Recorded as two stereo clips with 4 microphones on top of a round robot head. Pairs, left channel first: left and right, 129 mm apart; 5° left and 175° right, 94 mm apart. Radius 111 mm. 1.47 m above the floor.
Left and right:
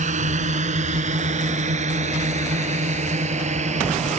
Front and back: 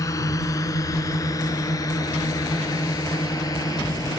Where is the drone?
60° right; by 4.2 s 55° right.